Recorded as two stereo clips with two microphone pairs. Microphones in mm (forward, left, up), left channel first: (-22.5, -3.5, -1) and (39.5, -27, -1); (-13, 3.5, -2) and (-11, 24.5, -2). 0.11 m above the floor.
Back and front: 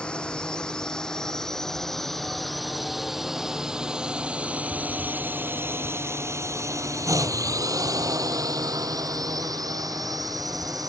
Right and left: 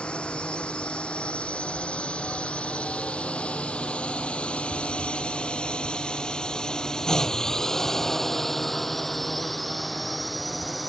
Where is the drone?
125° right; by 10.9 s 5° right.